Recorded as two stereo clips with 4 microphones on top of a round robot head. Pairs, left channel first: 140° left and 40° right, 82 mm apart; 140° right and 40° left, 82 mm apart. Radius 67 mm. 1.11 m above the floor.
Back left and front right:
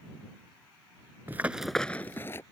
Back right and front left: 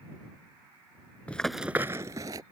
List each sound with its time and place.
1.3 s running footsteps: 80° right; by 2.4 s 80° left